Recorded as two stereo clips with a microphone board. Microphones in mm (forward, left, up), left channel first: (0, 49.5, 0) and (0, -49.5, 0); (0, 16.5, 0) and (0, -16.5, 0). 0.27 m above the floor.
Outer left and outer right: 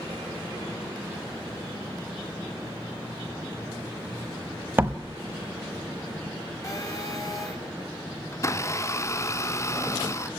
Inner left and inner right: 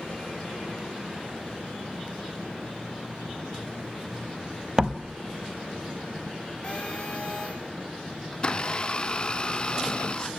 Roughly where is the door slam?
Right.